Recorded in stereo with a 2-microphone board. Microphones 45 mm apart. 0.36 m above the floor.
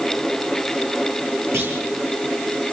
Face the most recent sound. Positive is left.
turn(degrees=-80)